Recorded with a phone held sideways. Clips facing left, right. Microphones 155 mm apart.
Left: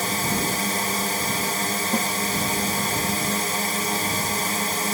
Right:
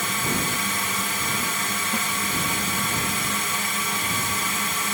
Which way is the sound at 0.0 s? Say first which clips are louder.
Left 2 dB; 40° left (ahead or behind).